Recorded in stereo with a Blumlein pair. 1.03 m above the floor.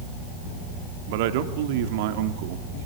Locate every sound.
1.1 s a man speaking: 50° right, 2 m